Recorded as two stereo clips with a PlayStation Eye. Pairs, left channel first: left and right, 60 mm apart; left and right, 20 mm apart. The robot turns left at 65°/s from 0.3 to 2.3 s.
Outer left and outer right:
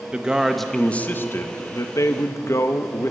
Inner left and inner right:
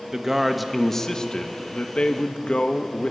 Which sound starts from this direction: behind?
A man speaking, at 0.1 s.